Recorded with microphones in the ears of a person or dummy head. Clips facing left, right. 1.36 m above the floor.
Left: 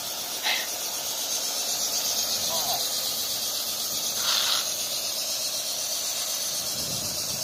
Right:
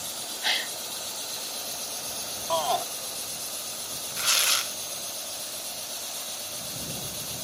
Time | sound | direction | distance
0.4 | a gasp | 10° right (ahead or behind) | ?
2.5 | a shout | 75° right (ahead or behind) | ?
4.2 | tearing paper | 40° right (ahead or behind) | ?